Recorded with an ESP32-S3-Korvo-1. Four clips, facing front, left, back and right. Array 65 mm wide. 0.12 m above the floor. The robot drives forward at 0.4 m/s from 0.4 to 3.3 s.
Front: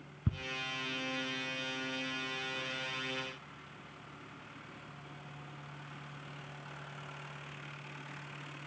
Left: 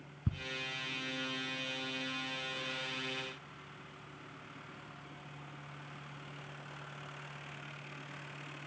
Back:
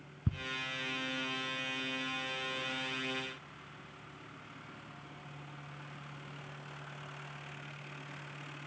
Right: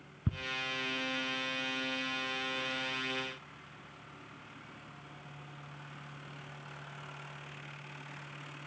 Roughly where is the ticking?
Right.